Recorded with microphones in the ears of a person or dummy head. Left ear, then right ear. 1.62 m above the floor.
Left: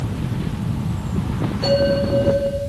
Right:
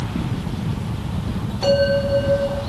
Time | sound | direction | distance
1.6 | a bell | 40° right (ahead or behind) | 6 m